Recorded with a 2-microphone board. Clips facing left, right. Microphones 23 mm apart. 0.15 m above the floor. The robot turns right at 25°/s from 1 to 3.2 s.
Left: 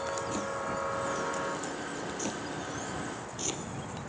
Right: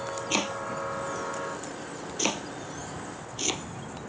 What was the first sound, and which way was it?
Chopping, 75° right (ahead or behind).